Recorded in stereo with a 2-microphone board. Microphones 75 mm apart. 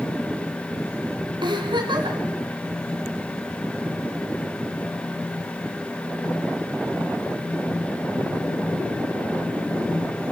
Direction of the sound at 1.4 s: 90° right.